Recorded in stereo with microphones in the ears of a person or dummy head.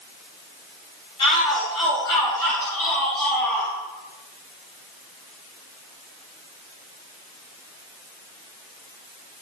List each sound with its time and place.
1.2 s a shout: 25° left (ahead or behind), 8 m; by 3.7 s 15° left (ahead or behind), 9 m